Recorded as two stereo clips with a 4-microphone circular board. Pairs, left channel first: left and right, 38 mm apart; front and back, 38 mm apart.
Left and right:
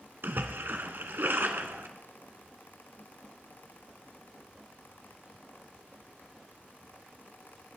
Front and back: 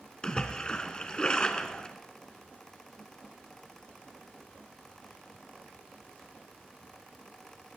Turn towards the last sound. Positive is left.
turn(degrees=-65)